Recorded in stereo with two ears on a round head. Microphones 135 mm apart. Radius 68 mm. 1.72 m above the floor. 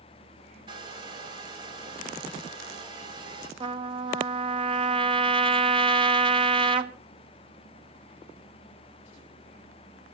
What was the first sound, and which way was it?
A hair dryer, 30° right (ahead or behind).